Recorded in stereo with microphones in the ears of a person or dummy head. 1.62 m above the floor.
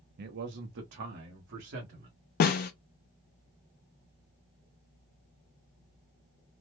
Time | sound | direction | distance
0.2 | a man speaking | 45° right (ahead or behind) | 0.6 m
2.4 | a snare drum | 45° left (ahead or behind) | 0.5 m